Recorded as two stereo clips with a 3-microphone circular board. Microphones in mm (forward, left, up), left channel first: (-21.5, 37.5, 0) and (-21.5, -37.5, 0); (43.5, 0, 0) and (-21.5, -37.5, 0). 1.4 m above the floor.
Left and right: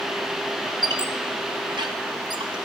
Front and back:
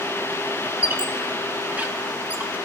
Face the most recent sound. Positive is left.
turn(degrees=-80)